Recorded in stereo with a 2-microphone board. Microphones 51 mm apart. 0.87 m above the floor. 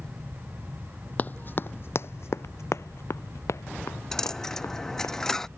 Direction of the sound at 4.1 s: 10° left (ahead or behind).